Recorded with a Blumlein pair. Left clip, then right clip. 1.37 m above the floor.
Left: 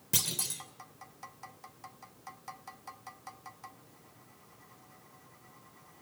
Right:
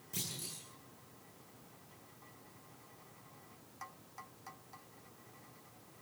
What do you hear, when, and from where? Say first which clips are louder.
0.1 s a clunk: left 10 dB; 55° left, 3 m